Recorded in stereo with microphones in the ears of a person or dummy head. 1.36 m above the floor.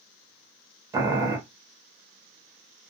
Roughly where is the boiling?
Centre.